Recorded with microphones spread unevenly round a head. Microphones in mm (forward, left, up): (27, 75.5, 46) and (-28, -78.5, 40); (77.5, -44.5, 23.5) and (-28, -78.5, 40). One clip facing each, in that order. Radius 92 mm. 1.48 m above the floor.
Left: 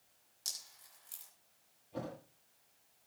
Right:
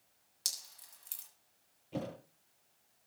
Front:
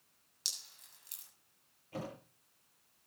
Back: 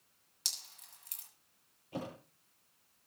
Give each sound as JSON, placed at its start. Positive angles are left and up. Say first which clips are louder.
{"t": 0.5, "sound": "dripping", "louder": "right 2 dB, back 3 dB", "azimuth_deg": -130, "distance_m": 7.5}
{"t": 1.9, "sound": "a thud", "louder": "right 3 dB, back 1 dB", "azimuth_deg": -95, "distance_m": 7.5}